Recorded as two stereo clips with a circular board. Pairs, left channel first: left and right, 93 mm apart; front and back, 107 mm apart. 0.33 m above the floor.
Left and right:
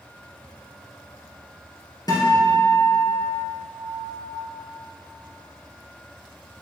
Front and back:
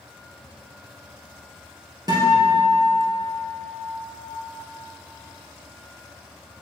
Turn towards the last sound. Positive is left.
turn(degrees=130)